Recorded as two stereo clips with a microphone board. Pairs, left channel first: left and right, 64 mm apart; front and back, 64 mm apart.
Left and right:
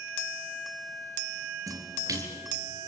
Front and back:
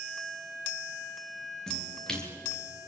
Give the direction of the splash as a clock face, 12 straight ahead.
3 o'clock.